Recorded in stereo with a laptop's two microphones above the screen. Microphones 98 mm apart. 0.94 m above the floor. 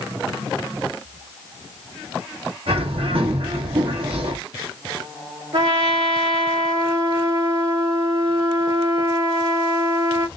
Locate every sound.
2.7 s a bird: 70° right (ahead or behind), 1.1 m
5.5 s a trumpet: 85° right, 2 m